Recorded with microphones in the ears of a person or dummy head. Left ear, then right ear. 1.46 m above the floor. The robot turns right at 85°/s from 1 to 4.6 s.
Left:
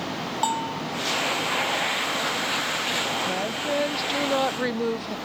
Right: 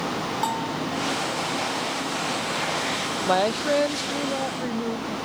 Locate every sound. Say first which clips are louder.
0.4 s a bell: left 4 dB; 20° left (ahead or behind)
3.2 s a woman speaking: right 5 dB; 45° right; by 5.2 s 70° left